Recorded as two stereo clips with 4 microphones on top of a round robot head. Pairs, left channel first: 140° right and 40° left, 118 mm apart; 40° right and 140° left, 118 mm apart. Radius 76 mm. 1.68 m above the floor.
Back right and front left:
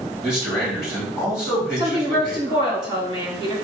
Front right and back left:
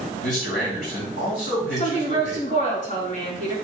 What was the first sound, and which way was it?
A man speaking, 50° right.